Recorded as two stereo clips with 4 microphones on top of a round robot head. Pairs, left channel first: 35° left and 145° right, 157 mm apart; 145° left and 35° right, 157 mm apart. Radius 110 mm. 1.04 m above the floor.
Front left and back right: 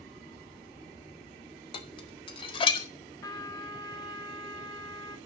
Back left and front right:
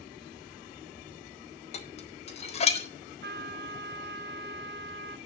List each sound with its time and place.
1.7 s dishes clattering: 95° left, 1.6 m
3.2 s a trumpet: 35° right, 1.9 m